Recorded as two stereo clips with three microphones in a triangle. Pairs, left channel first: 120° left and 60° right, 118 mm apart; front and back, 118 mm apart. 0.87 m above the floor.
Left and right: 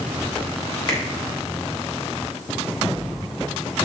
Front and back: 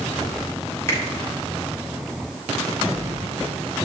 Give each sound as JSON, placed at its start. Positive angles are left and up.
{"t": 0.9, "sound": "a finger snap", "azimuth_deg": 65, "distance_m": 2.5}